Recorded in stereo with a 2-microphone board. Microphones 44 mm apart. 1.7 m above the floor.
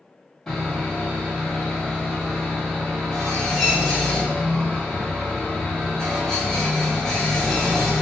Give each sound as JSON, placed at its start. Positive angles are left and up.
{"t": 0.5, "sound": "sawing", "side_deg": 5, "distance_m": 1.3}